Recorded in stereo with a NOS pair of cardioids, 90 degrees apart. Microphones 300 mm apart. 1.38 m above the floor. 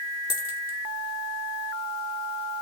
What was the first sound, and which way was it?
A dropped coin, 65° left.